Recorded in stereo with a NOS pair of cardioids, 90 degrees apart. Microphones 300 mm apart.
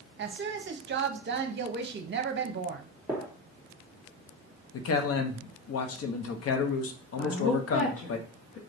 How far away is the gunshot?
About 1.7 m.